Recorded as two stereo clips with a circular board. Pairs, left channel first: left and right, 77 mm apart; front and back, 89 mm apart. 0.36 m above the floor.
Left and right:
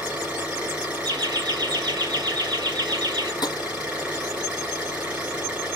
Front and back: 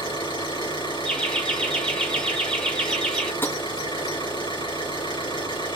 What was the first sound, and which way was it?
An engine running, 15° right.